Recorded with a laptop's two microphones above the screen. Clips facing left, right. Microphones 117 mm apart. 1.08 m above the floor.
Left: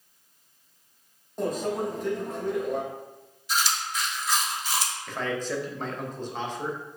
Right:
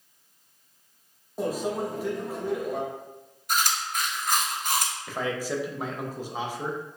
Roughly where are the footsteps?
No footsteps in this recording.